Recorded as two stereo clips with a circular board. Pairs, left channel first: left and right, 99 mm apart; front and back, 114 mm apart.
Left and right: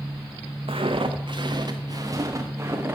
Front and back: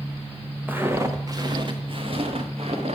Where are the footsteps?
105° right, 1.5 m; by 3.0 s 155° right, 2 m.